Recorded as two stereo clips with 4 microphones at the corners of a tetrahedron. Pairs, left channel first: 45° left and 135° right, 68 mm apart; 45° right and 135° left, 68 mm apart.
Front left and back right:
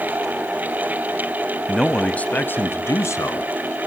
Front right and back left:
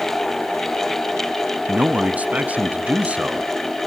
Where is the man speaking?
125° left, 1.2 m; by 3.5 s 65° left, 2 m.